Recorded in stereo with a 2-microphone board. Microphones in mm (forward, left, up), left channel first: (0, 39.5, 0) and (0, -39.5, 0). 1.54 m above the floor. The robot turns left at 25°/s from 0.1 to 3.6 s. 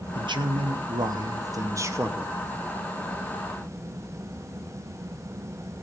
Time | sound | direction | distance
0.1 | a man speaking | 100° right | 1.0 m